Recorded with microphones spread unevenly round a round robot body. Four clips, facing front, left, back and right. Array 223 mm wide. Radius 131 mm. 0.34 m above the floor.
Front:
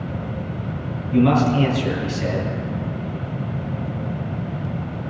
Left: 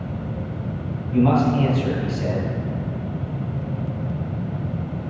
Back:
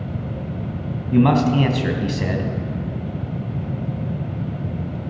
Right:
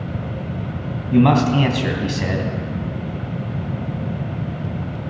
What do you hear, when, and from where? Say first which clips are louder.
1.1 s a man speaking: right 3 dB, back 1 dB; 130° right, 2.5 m